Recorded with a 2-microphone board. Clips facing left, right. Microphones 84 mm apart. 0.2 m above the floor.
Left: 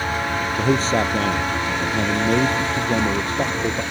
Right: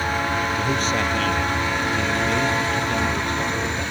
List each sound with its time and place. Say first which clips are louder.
0.6 s a man speaking: left 3 dB; 35° left (ahead or behind)